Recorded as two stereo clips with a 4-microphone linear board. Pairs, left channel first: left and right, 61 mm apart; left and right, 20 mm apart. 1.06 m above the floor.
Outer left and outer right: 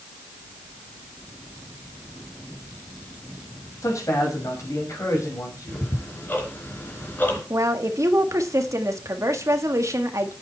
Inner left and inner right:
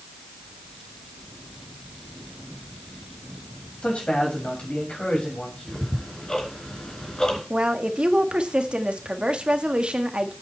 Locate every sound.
3.8 s a man speaking: 70° left (ahead or behind), 6 m; by 5.9 s 60° left (ahead or behind), 6 m
5.7 s ticking: 35° left (ahead or behind), 3.5 m
7.5 s a woman speaking: 60° right (ahead or behind), 1.6 m